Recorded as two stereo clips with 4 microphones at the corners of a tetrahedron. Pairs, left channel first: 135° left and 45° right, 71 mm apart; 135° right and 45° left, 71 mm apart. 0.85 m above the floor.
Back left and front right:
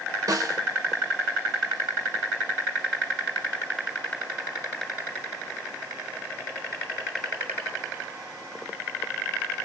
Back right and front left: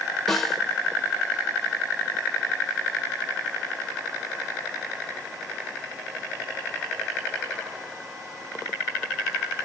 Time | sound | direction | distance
0.3 | a snare drum | 50° right | 0.7 m